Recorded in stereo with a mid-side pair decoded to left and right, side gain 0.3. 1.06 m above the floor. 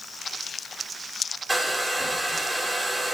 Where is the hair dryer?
15° right, 2.5 m.